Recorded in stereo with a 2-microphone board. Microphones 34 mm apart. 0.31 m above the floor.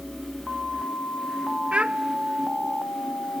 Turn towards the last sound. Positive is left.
turn(degrees=-35)  # may be behind; listen again after turning